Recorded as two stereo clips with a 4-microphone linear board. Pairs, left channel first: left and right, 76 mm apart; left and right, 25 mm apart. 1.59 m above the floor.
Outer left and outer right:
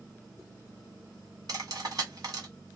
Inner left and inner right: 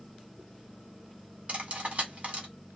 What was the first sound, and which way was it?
Cutlery clinking, 50° right (ahead or behind).